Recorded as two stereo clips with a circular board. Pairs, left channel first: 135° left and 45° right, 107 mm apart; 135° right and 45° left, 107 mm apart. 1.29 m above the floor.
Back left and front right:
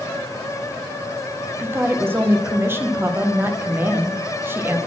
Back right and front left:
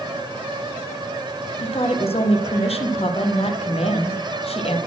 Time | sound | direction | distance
1.6 | a woman speaking | 115° right | 0.8 m